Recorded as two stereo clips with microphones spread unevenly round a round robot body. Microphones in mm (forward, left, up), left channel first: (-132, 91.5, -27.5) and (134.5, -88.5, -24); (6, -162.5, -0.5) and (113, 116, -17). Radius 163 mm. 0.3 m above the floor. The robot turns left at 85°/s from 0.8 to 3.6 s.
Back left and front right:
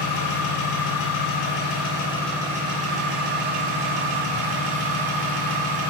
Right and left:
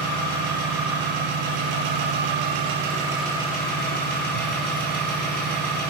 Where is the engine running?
175° right, 5.5 m; by 5.9 s 55° right, 5.5 m.